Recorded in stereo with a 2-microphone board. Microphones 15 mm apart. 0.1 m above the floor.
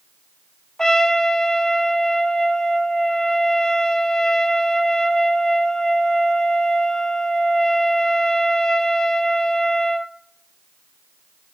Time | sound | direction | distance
0.8 | a trumpet | 50° left (ahead or behind) | 1.0 m